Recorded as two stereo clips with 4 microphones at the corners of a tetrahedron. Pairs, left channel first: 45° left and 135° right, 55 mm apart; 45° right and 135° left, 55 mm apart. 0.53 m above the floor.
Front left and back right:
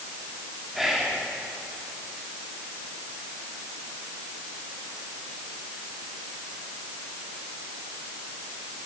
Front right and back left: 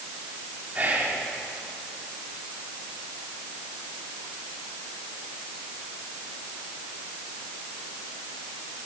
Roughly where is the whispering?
Behind left.